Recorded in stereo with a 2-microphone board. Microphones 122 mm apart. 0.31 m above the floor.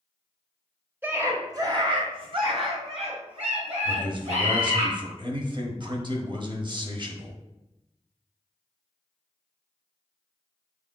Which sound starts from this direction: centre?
A scream, at 1.0 s.